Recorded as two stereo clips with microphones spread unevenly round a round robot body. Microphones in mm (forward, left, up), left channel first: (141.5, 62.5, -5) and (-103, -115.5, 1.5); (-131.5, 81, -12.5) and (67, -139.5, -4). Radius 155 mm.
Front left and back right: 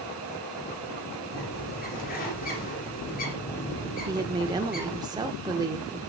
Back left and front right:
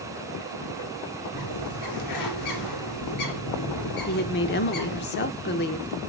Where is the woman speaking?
145° left, 0.8 m.